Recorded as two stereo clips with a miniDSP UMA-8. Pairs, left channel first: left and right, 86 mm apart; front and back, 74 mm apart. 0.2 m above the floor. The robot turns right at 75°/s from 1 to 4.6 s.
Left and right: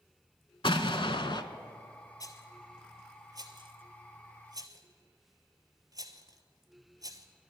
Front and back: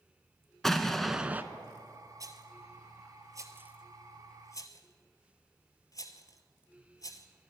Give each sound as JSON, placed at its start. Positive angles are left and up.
{"t": 0.6, "sound": "an explosion", "azimuth_deg": 85, "distance_m": 0.7}
{"t": 2.2, "sound": "a rattle", "azimuth_deg": 135, "distance_m": 1.0}